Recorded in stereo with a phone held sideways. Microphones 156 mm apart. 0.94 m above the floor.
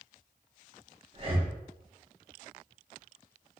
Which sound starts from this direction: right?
Breathing, at 1.1 s.